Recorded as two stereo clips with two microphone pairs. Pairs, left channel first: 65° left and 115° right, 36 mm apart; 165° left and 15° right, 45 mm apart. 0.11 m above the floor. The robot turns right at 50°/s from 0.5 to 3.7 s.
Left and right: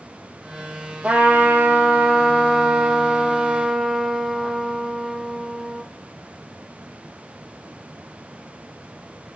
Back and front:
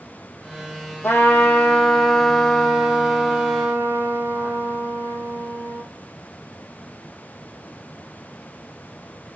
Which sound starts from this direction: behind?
A trumpet, at 1.0 s.